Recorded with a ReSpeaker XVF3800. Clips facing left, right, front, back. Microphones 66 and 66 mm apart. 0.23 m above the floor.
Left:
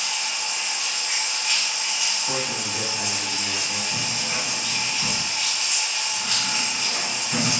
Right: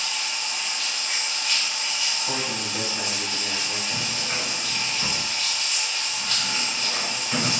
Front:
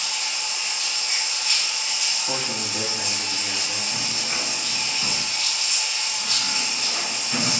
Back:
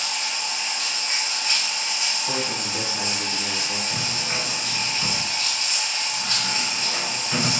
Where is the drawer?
120° right, 1.7 m.